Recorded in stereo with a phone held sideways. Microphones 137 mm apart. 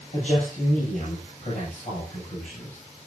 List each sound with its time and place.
0.1 s a man speaking: 55° left (ahead or behind), 8 m